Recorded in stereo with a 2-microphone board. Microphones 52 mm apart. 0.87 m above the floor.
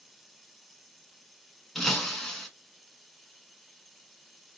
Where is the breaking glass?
10° left (ahead or behind), 1.4 m.